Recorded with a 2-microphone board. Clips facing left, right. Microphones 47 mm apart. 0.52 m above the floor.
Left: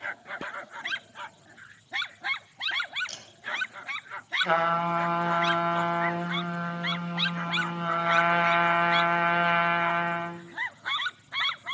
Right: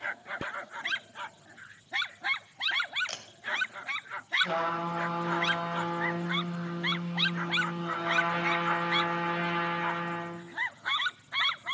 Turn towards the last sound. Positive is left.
turn(degrees=80)